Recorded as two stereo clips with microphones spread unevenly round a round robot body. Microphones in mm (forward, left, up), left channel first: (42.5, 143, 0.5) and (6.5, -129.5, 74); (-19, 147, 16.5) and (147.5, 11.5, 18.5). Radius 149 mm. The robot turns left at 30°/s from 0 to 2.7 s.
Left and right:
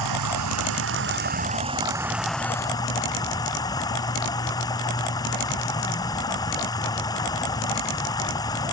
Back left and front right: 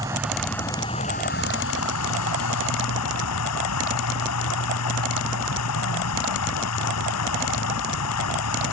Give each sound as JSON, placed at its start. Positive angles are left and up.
{"t": 0.0, "sound": "running water", "azimuth_deg": -120}